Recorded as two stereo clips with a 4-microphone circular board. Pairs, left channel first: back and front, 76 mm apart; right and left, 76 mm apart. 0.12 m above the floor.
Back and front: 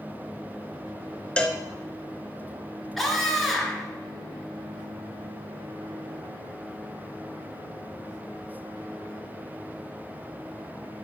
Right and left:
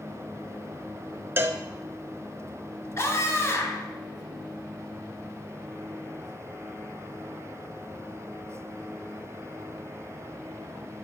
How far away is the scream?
About 1.9 m.